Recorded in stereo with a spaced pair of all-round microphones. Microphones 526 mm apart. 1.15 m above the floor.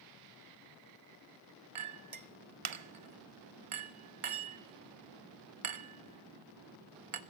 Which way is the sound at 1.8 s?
75° right (ahead or behind).